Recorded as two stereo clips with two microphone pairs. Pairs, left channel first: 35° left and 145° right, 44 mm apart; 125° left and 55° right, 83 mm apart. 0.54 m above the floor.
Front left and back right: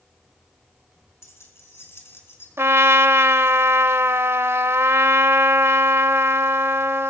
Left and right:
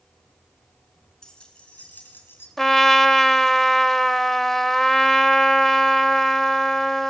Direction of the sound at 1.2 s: 40° left.